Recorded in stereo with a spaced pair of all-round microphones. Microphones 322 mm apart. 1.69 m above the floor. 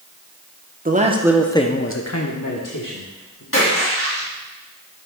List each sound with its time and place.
0.8 s a man speaking: 25° right (ahead or behind), 1.2 m; by 3.4 s 75° left (ahead or behind), 2 m
3.5 s a splash: 40° left (ahead or behind), 3.5 m